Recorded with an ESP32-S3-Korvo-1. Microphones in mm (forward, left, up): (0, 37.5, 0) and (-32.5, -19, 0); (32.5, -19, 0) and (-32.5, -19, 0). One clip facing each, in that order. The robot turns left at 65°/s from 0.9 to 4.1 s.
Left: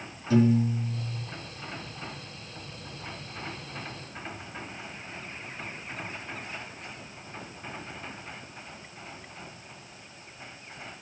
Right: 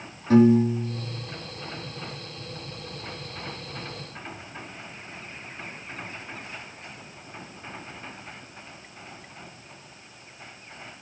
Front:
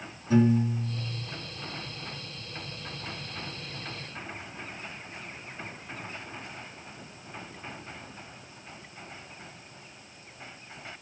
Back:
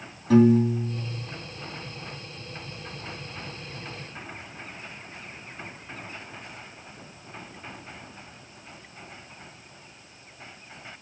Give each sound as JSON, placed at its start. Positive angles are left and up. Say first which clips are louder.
{"t": 0.3, "sound": "a piano", "louder": "right 6 dB, back 6 dB", "azimuth_deg": -155, "distance_m": 3.0}